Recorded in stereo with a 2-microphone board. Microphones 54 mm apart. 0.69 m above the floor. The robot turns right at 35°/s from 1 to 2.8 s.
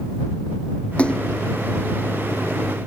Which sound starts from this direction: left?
A splash, at 1.0 s.